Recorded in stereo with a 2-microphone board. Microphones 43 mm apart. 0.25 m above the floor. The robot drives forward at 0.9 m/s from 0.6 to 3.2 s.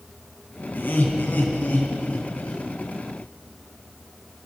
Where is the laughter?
55° left (ahead or behind), 2.5 m; by 2.6 s 35° left (ahead or behind), 3.5 m.